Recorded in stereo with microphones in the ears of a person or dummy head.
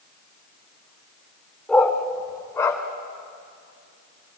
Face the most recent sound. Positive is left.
turn(degrees=15)  # may be behind; listen again after turning